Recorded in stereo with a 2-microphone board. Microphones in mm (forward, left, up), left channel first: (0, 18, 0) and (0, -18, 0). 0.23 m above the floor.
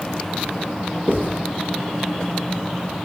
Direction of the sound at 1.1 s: 70° left (ahead or behind).